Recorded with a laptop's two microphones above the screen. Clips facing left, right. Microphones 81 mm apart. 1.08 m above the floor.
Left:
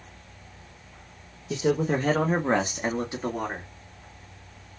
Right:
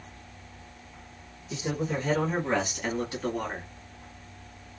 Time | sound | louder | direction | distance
1.5 | a man speaking | left 7 dB | 75° left (ahead or behind) | 0.7 m